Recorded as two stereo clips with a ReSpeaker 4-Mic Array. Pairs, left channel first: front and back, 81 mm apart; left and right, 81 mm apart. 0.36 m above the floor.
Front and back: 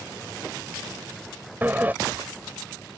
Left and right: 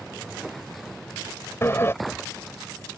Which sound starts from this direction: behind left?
A sliding door, at 1.6 s.